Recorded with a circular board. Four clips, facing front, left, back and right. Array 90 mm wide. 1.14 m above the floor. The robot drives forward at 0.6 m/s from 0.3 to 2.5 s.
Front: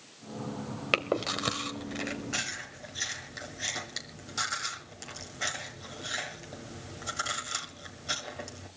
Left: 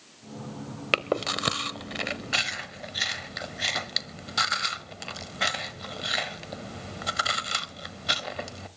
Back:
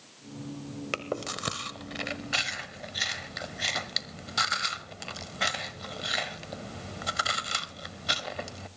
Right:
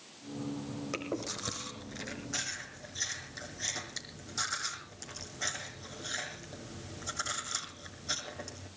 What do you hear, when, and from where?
0.9 s chewing: 65° left, 1.3 m; by 8.7 s 120° left, 1.3 m